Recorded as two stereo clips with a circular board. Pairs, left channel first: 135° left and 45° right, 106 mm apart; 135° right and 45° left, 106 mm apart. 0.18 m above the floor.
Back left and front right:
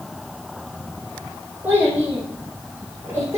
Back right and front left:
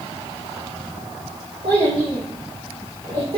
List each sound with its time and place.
1.6 s a child speaking: 25° left, 6.5 m; by 3.4 s 20° left, 6 m